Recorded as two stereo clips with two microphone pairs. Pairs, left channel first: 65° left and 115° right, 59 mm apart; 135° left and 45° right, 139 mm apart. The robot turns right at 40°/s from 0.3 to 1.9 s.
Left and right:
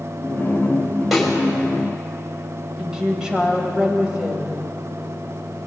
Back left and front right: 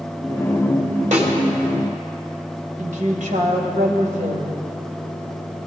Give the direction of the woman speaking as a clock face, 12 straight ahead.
1 o'clock.